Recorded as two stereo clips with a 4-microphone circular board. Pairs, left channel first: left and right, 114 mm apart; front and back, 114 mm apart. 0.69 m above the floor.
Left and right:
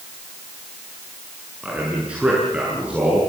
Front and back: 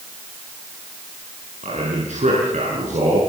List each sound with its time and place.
1.6 s a man speaking: 170° right, 8 m